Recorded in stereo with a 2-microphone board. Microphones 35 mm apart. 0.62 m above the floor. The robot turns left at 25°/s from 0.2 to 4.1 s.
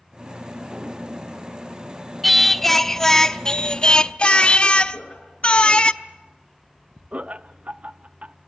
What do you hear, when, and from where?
2.2 s singing: straight behind, 0.6 m; by 5.9 s 135° left, 0.6 m
4.9 s laughter: 30° left (ahead or behind), 8.5 m
7.1 s laughter: 40° right (ahead or behind), 0.6 m